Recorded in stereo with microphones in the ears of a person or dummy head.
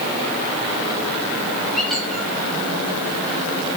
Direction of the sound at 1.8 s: 5° right (ahead or behind).